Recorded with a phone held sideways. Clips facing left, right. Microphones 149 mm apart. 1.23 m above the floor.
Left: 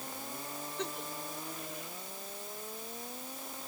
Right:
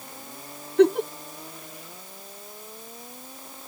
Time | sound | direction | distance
0.8 | a giggle | 70° right (ahead or behind) | ?